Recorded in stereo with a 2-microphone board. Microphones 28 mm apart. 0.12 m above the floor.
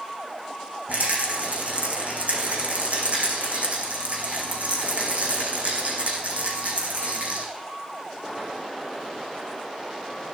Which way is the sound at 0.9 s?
65° right (ahead or behind).